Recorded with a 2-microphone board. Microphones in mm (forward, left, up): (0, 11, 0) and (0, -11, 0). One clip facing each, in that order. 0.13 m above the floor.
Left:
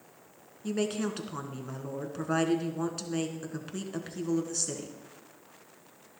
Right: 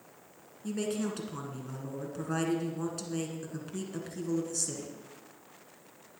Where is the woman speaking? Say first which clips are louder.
Left 2 dB; 25° left (ahead or behind), 1.5 m.